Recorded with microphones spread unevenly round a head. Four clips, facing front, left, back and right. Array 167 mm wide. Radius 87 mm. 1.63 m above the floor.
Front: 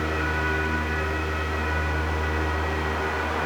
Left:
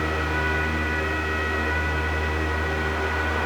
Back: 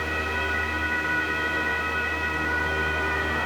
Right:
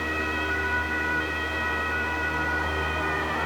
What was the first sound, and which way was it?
Only background noise.